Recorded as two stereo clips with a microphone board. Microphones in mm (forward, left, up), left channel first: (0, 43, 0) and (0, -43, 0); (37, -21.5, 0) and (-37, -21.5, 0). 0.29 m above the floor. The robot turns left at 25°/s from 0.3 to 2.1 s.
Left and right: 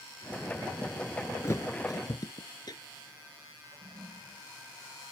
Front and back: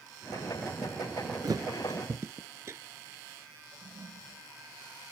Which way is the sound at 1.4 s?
145° left.